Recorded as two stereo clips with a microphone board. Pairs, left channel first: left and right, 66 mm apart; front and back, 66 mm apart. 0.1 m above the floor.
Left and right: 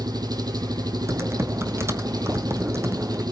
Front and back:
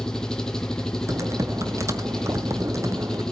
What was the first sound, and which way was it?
An engine running, 80° right.